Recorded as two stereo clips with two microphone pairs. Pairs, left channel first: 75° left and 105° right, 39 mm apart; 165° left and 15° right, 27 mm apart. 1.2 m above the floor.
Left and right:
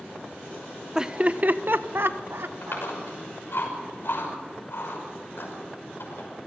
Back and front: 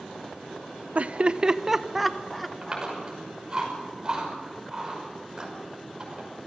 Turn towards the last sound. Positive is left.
turn(degrees=50)